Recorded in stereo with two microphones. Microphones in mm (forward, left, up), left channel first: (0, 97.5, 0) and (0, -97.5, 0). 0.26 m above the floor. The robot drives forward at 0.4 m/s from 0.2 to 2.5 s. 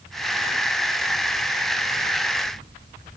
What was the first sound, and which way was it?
Only background noise.